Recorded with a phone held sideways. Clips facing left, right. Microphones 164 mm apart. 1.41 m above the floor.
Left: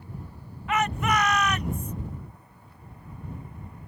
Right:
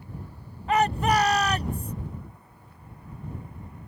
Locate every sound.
0.7 s a shout: 35° right (ahead or behind)